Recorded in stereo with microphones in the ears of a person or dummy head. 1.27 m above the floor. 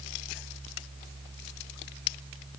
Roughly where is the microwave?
No microwave in this recording.